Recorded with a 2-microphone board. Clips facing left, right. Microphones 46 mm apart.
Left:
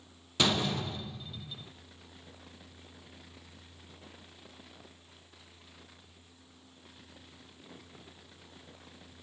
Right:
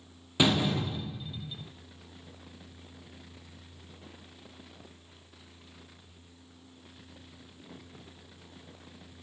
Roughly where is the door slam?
Centre.